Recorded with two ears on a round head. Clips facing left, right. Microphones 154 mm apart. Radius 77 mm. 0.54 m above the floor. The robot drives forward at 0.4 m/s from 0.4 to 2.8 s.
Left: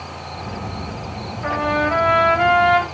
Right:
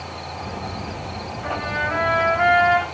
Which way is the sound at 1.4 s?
60° left (ahead or behind).